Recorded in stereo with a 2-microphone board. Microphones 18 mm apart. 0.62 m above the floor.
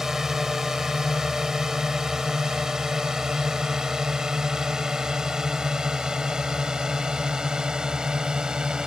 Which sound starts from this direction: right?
A drone, at 0.0 s.